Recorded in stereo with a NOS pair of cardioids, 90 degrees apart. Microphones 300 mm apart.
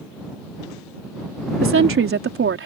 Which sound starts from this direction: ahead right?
A woman speaking, at 1.6 s.